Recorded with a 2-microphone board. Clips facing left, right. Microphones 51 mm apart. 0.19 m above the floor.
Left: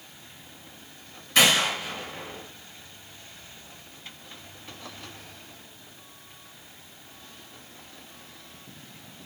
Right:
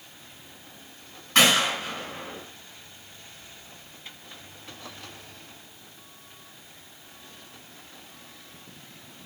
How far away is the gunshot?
About 2 m.